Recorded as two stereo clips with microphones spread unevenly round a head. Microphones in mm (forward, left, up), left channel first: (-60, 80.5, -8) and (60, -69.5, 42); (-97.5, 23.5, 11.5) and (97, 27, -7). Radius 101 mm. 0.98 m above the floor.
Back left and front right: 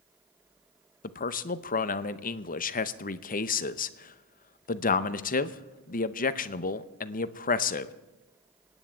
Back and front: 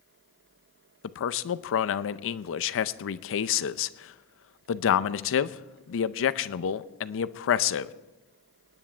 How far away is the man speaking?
About 0.7 m.